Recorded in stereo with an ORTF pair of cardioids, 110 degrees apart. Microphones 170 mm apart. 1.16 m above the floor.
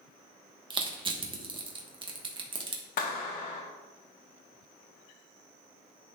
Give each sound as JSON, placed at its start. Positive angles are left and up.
{"t": 0.7, "sound": "crushing", "azimuth_deg": -30, "distance_m": 1.3}
{"t": 3.0, "sound": "a clap", "azimuth_deg": 60, "distance_m": 1.3}